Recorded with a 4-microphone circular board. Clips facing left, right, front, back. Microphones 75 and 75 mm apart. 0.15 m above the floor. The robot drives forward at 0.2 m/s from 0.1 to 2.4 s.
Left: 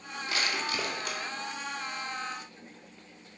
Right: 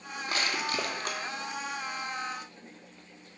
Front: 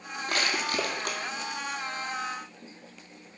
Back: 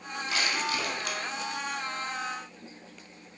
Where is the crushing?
40° right, 0.8 m; by 1.2 s 50° right, 0.7 m.